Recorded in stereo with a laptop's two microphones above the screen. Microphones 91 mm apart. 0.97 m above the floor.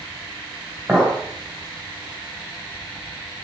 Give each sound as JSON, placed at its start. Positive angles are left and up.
{"t": 0.9, "sound": "a clink", "side_deg": -30, "distance_m": 3.0}